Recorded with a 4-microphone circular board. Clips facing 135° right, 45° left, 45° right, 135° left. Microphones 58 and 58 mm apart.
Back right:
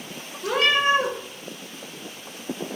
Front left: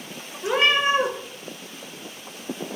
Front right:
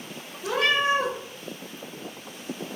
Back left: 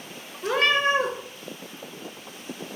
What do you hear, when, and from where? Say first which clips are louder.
0.4 s a cat meowing: even, back left 1 dB; 105° left, 0.6 m